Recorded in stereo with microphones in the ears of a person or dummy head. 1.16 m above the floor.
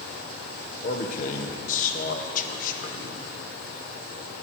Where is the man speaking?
45° left (ahead or behind), 1.4 m.